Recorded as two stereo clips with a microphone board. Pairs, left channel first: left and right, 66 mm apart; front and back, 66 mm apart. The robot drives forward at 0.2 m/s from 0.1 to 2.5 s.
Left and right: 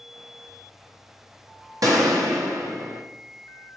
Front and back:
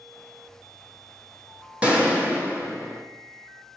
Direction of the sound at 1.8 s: 110° right.